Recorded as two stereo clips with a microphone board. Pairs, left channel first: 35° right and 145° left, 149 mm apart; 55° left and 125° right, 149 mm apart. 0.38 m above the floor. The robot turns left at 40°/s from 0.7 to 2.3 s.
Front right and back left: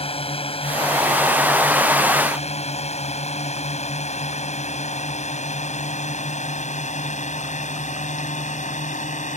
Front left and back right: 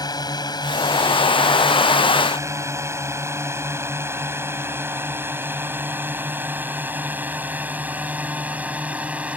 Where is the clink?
I don't hear a clink.